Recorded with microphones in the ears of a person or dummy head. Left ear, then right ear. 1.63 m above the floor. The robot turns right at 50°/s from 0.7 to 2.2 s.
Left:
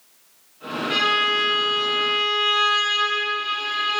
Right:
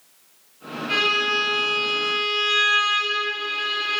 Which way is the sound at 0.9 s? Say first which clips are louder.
Left 1 dB; 5° left.